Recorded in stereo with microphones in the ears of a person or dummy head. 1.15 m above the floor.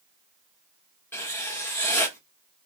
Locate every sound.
1.1 s writing: 10° left (ahead or behind), 1.2 m